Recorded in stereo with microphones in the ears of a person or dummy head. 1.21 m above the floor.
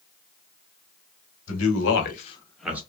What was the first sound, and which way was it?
A man speaking, 80° left.